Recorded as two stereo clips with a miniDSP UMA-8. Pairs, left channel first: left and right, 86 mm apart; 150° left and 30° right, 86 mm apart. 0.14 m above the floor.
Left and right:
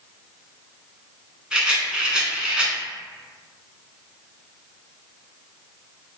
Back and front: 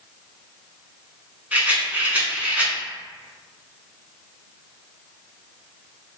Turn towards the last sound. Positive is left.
turn(degrees=-35)